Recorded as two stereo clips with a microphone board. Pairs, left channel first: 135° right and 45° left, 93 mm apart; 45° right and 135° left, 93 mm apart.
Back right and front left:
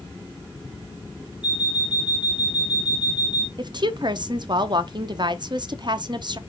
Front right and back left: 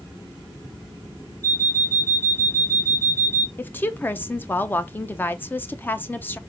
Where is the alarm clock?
105° right, 1.2 m.